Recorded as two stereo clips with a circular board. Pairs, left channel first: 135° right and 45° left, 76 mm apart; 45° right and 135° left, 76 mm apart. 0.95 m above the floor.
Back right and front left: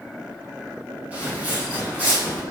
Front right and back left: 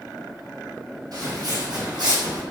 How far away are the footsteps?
About 1.7 m.